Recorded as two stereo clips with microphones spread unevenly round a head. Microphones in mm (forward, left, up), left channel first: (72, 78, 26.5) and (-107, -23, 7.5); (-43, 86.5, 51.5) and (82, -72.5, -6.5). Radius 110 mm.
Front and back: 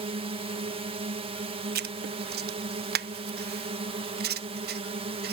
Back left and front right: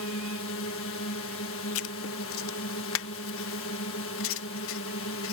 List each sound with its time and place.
0.0 s a drone: 155° left
1.8 s writing: 165° left